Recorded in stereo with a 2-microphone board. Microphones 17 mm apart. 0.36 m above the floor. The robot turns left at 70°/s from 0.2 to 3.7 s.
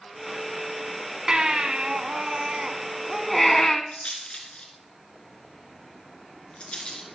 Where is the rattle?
75° left (ahead or behind), 3.5 m.